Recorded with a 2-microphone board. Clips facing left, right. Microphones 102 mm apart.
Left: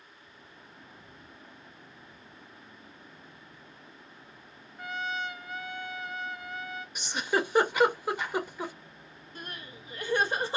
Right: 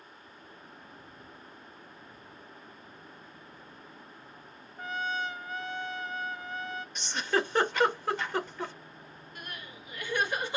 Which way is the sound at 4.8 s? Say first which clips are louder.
Right 1 dB; 30° right (ahead or behind).